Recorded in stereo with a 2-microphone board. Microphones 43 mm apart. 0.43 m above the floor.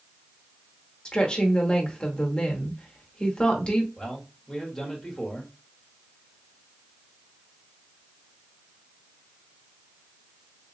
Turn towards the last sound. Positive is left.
turn(degrees=10)  # may be behind; listen again after turning